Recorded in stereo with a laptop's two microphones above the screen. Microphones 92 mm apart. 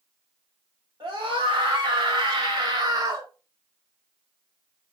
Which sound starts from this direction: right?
A scream, at 1.0 s.